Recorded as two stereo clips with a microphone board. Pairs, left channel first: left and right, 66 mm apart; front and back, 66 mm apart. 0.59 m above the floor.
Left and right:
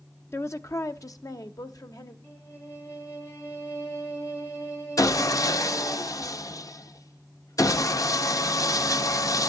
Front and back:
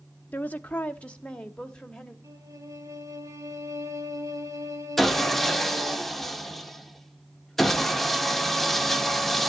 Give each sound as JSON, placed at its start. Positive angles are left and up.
{"t": 0.3, "sound": "a woman speaking", "azimuth_deg": 55, "distance_m": 1.0}
{"t": 2.2, "sound": "a violin", "azimuth_deg": 145, "distance_m": 5.0}
{"t": 5.0, "sound": "sawing", "azimuth_deg": 85, "distance_m": 1.0}